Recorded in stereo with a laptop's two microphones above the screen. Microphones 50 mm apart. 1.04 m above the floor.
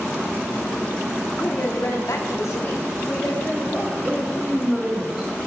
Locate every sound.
1.4 s a woman speaking: 35° left (ahead or behind), 1.3 m; by 3.9 s 20° left (ahead or behind), 2.5 m
4.0 s a woman speaking: 5° right (ahead or behind), 2 m